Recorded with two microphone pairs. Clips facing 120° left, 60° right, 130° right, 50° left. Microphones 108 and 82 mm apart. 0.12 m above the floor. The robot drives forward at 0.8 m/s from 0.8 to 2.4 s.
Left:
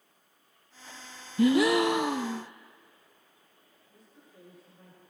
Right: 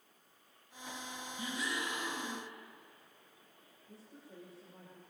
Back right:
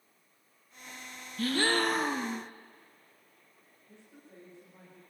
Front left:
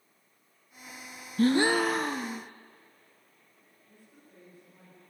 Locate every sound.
1.4 s a gasp: 105° left, 0.5 m; by 2.5 s 155° left, 1.1 m
3.9 s a woman speaking: 65° right, 10 m